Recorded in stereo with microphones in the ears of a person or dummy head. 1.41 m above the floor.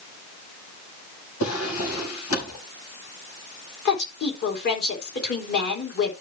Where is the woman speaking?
50° left (ahead or behind), 4 m.